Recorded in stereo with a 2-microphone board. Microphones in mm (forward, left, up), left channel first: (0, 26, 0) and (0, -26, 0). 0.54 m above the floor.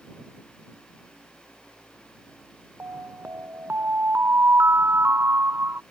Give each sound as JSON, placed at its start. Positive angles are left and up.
{"t": 2.8, "sound": "an alarm", "side_deg": -45}